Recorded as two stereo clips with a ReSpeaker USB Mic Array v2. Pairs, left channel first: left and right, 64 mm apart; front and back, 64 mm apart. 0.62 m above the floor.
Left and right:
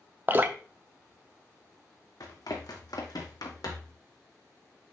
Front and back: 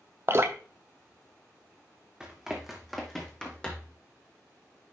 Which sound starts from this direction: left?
Running footsteps, at 2.2 s.